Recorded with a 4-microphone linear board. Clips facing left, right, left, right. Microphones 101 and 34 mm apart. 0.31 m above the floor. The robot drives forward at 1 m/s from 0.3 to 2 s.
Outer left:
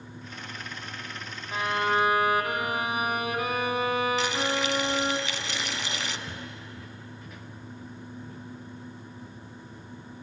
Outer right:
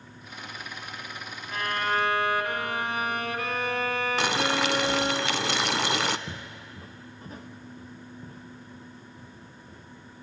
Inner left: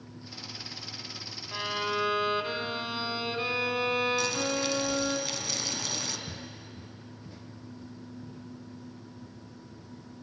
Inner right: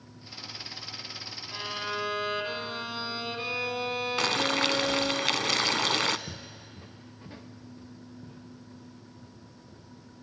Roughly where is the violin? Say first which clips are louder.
Outer left 2 dB, inner left 3 dB; centre.